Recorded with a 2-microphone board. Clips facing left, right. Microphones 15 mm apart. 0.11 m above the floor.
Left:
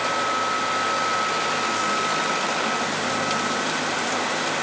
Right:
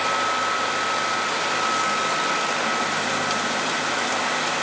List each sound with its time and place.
Only background noise.